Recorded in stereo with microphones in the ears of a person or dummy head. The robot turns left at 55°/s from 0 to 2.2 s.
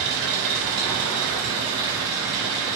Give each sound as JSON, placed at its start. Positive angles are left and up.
{"t": 0.0, "sound": "an engine running", "azimuth_deg": -55, "distance_m": 3.5}